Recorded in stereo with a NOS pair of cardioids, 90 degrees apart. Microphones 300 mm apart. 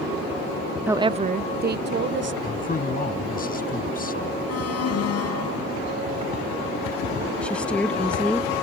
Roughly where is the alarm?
Ahead left.